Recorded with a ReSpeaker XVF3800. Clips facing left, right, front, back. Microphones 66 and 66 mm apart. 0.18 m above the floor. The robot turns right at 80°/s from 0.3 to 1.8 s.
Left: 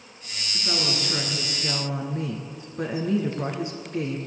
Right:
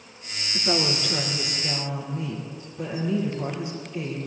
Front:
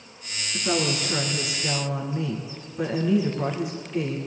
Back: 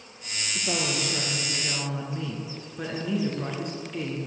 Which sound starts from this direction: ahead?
A woman speaking, at 0.5 s.